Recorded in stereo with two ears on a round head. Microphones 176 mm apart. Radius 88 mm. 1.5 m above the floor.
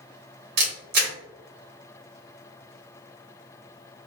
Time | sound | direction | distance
0.6 | a camera shutter | 50° right (ahead or behind) | 1.8 m